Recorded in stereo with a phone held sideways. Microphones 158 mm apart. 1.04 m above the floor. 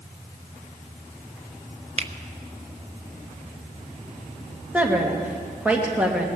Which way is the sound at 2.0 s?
40° right (ahead or behind).